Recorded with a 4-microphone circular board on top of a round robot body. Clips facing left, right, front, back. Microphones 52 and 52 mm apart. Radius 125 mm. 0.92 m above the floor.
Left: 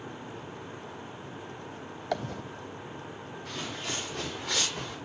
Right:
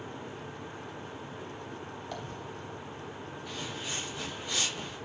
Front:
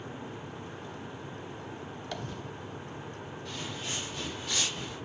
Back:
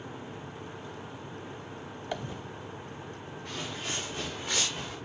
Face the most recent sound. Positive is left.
turn(degrees=120)